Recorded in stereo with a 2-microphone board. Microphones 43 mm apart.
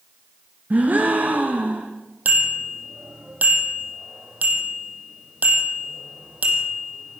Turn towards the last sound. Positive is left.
turn(degrees=-40)  # may be behind; listen again after turning